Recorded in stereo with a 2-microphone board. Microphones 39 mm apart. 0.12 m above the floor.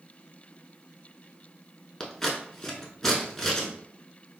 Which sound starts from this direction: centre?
Scissors, at 2.0 s.